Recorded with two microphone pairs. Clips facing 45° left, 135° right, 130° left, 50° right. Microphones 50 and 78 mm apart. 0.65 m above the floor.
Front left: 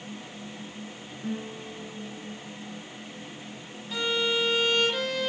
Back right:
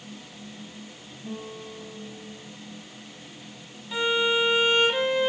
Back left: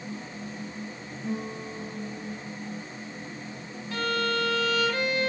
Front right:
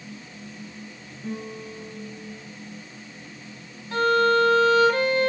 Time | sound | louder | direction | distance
1.2 | a guitar | front left 2 dB, back left 1 dB | 55° left | 9.5 m
3.9 | a violin | back right 4 dB, front right 9 dB | 80° right | 1.3 m